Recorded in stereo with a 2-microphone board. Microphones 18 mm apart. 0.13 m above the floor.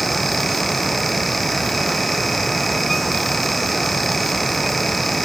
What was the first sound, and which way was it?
Only background noise.